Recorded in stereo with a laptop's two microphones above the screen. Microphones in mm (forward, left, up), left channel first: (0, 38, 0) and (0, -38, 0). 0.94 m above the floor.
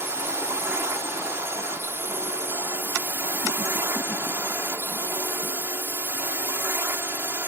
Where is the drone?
30° right (ahead or behind).